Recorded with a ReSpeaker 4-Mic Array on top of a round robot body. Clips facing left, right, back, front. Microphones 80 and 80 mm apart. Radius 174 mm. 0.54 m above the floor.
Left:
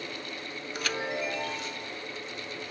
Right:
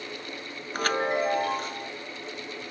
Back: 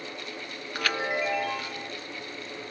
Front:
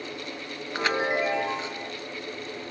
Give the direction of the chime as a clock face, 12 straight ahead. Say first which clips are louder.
Right 7 dB, front 3 dB; 2 o'clock.